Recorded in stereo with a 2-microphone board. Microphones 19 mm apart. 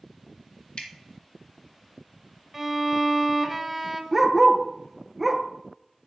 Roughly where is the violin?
Centre.